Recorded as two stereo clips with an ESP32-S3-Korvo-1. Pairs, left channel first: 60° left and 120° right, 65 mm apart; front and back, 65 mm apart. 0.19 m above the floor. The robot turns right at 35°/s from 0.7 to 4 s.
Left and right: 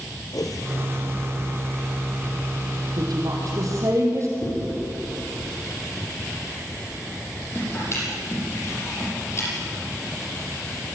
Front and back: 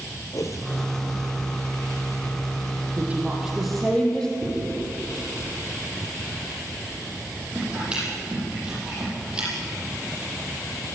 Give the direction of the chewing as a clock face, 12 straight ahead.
8 o'clock.